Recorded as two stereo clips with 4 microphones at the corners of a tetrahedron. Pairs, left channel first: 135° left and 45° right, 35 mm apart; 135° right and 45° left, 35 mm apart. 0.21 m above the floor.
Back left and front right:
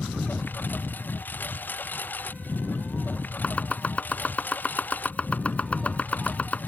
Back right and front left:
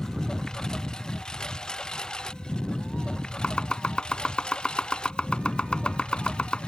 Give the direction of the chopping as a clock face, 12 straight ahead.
6 o'clock.